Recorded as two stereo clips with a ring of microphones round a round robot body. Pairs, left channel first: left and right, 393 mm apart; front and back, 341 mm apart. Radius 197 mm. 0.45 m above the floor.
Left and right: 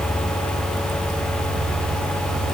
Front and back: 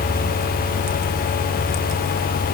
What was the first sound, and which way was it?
Only background noise.